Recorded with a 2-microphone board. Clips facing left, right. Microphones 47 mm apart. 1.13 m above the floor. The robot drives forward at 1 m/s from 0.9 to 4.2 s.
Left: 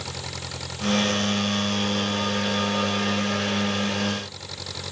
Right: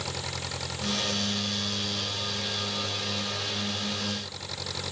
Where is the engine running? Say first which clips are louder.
Even; centre (ahead or behind).